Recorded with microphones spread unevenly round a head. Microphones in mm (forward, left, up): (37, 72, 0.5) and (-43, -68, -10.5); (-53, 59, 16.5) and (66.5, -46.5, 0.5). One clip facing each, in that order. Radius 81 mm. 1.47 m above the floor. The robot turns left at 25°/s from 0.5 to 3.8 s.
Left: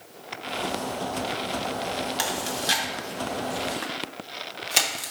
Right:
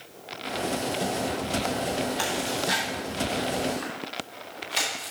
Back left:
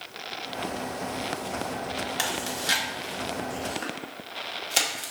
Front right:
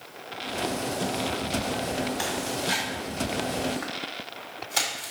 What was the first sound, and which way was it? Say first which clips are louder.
Chewing: right 1 dB, front right 2 dB; 125° left.